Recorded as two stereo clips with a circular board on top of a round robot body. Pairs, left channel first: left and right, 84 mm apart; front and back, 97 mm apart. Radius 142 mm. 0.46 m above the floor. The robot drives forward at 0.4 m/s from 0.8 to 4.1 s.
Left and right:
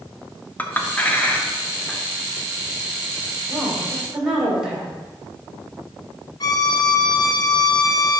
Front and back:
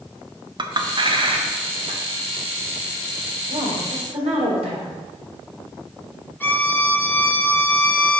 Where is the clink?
155° left, 1.0 m; by 2.0 s 165° left, 1.3 m.